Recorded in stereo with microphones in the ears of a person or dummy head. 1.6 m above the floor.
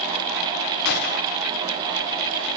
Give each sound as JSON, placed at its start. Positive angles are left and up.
{"t": 0.8, "sound": "a gunshot", "side_deg": 55, "distance_m": 1.9}